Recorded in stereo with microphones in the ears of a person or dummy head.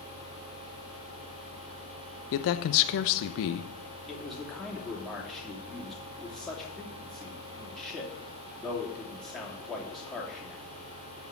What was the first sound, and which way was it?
A man speaking, 65° left (ahead or behind).